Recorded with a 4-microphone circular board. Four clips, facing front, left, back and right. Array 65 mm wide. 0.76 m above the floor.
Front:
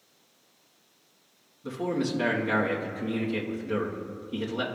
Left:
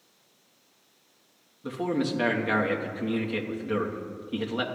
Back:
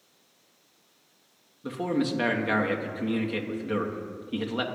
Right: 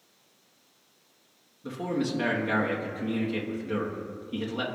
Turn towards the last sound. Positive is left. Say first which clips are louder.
# left 2 dB, back 1 dB
turn(degrees=155)